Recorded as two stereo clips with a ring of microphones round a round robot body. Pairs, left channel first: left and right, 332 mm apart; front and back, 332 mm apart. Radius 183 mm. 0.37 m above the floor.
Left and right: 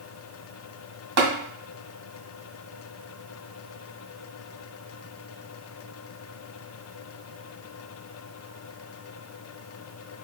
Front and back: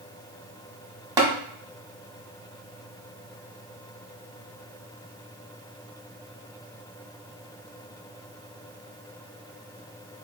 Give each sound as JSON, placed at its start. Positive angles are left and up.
{"t": 1.2, "sound": "tapping", "azimuth_deg": -100, "distance_m": 1.1}